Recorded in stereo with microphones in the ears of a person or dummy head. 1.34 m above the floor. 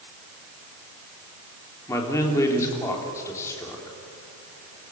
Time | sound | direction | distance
1.9 | a man speaking | 20° left (ahead or behind) | 3.5 m